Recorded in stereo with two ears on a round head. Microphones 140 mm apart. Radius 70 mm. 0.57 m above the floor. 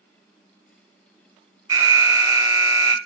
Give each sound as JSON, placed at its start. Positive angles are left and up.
{"t": 1.7, "sound": "an alarm", "side_deg": -20, "distance_m": 0.6}